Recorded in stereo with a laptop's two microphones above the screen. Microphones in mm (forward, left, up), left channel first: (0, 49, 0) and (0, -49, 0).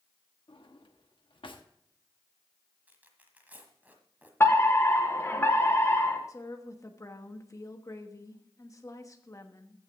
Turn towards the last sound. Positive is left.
turn(degrees=35)  # may be behind; listen again after turning